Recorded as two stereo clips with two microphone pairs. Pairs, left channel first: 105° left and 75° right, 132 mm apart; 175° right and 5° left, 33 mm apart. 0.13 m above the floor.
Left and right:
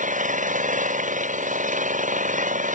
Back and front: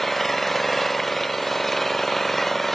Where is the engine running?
90° right.